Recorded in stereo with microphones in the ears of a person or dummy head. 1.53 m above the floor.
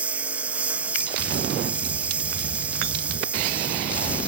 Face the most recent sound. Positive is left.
turn(degrees=-10)  # may be behind; listen again after turning